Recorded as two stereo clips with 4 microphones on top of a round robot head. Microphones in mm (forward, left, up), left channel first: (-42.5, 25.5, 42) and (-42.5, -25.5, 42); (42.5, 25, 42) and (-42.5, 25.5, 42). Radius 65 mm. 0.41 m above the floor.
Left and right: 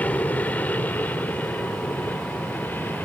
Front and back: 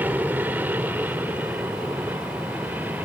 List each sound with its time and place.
0.0 s an aircraft: 125° left; by 3.0 s 120° left